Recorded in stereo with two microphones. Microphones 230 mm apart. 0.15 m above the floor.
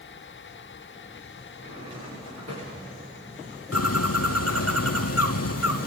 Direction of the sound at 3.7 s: 80° left.